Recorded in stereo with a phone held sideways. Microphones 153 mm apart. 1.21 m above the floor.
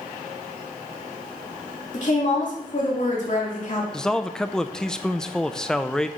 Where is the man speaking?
5° left (ahead or behind), 0.5 m.